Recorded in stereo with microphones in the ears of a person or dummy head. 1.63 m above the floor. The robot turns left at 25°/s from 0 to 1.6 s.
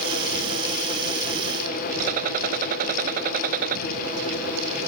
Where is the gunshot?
50° right (ahead or behind).